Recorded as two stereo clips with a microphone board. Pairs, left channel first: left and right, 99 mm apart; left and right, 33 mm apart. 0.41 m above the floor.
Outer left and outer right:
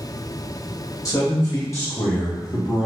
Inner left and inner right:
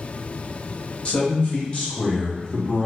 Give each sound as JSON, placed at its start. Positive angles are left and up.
{"t": 1.1, "sound": "a man speaking", "side_deg": 35, "distance_m": 1.2}